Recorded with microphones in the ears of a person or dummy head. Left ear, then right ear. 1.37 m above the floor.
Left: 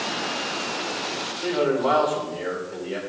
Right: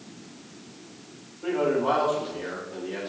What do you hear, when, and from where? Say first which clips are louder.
1.4 s a man speaking: left 2 dB; 60° left (ahead or behind), 5 m